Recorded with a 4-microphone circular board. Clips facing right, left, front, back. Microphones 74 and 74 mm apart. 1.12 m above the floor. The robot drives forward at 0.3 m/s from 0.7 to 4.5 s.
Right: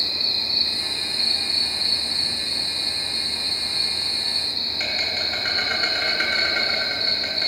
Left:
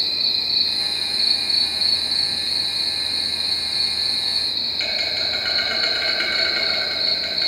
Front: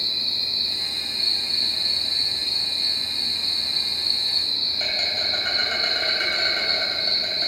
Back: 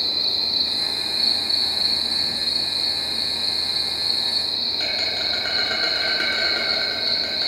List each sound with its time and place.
0.0 s an insect: 155° right, 1.0 m; by 7.5 s 170° right, 2 m